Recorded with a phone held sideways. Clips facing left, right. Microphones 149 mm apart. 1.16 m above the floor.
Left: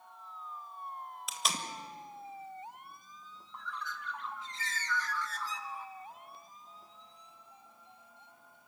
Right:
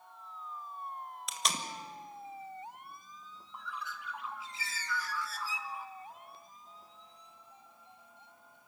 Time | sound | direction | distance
1.3 | tape being pulled | centre (ahead or behind) | 1.7 m
3.5 | a bird | 10° right (ahead or behind) | 1.0 m